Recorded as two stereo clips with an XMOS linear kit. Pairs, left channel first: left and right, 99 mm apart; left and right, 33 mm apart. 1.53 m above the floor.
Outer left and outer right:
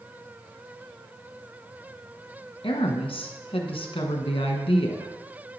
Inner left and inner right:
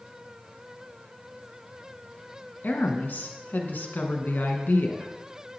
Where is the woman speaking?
60° left (ahead or behind), 1.5 m.